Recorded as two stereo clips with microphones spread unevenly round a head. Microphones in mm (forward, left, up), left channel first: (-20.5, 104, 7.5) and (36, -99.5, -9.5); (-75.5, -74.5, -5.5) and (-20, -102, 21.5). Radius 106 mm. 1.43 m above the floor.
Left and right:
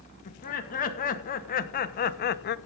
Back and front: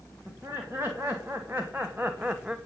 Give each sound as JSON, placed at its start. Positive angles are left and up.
{"t": 0.2, "sound": "laughter", "azimuth_deg": 50, "distance_m": 2.0}